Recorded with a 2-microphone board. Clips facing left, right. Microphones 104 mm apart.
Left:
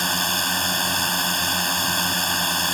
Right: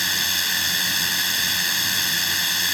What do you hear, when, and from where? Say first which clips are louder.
0.0 s a drone: left 5 dB; 40° left (ahead or behind)